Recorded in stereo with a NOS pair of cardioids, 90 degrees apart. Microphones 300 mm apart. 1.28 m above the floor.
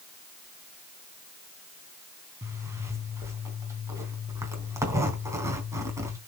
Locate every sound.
2.4 s a zipper: 10° right, 3.5 m